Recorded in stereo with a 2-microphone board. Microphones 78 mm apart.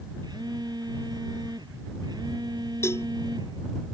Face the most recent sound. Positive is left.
turn(degrees=35)  # may be behind; listen again after turning